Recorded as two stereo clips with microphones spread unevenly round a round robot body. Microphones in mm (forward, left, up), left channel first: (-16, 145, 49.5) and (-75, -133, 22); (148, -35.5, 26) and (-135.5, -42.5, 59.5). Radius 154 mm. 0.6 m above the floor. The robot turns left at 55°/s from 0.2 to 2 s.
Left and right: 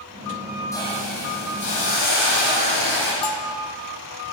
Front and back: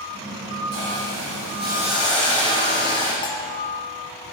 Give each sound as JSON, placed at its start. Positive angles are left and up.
{"t": 0.7, "sound": "a hiss", "azimuth_deg": 160, "distance_m": 9.5}
{"t": 3.2, "sound": "a bell", "azimuth_deg": 80, "distance_m": 3.0}